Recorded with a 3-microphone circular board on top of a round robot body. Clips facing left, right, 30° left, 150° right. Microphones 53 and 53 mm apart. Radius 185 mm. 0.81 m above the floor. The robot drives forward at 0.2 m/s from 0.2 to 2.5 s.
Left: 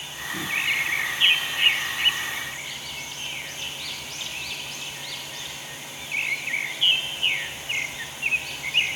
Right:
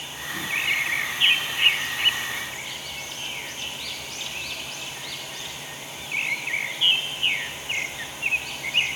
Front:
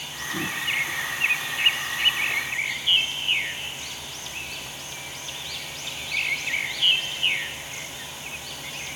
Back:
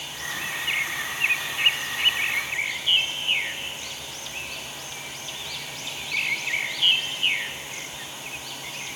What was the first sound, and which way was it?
Only background noise.